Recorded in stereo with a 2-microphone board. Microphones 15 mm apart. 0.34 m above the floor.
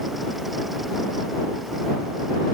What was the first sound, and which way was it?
Only background noise.